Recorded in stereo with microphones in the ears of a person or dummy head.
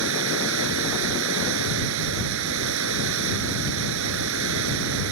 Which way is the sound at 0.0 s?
70° right (ahead or behind).